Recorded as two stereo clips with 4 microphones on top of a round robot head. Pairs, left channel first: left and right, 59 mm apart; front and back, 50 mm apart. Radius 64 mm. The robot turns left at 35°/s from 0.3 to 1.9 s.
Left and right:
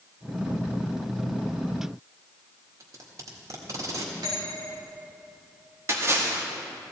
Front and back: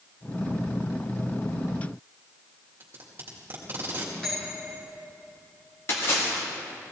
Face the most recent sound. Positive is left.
turn(degrees=-45)